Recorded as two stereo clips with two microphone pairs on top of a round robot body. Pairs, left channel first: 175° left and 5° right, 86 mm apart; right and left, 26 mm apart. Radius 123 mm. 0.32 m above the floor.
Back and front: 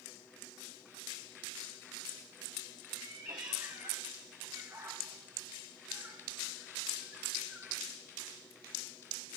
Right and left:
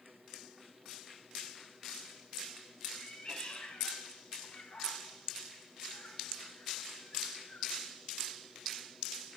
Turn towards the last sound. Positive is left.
turn(degrees=-80)